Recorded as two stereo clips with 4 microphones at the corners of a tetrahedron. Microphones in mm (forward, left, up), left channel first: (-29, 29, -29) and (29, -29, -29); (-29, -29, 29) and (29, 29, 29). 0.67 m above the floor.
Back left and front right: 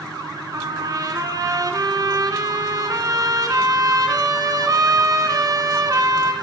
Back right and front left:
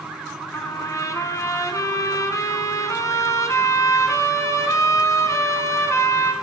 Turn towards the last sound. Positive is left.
turn(degrees=-85)